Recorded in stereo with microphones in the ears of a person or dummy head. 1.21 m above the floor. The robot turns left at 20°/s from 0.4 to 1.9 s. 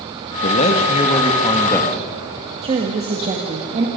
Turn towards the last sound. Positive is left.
turn(degrees=-30)  # may be behind; listen again after turning